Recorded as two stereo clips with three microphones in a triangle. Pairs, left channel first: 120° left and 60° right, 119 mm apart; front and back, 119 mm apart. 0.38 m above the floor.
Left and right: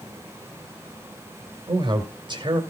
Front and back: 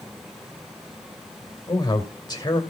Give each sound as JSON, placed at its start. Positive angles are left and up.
{"t": 1.7, "sound": "a man speaking", "azimuth_deg": -35, "distance_m": 1.9}